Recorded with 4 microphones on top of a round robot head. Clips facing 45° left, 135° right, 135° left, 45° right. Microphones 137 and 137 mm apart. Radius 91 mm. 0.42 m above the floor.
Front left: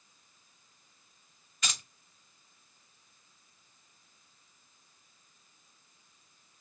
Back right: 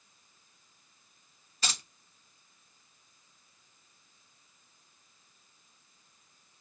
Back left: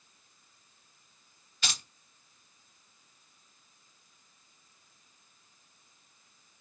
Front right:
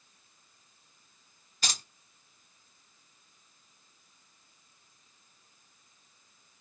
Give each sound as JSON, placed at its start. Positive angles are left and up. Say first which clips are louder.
{"t": 1.6, "sound": "keys jangling", "louder": "back right 2 dB, front right 1 dB", "azimuth_deg": -85, "distance_m": 1.2}